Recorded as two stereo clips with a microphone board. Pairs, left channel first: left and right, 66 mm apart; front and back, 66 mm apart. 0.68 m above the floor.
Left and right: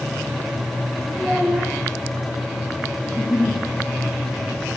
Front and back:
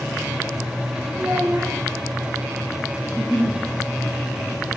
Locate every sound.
1.1 s a child speaking: straight behind, 0.6 m
3.0 s a giggle: 70° left, 1.2 m